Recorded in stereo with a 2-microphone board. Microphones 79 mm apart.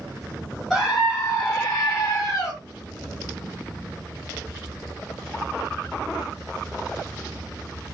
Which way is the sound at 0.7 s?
5° left (ahead or behind).